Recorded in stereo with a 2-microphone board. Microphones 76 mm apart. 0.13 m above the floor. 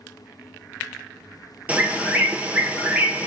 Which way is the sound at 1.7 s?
20° right (ahead or behind).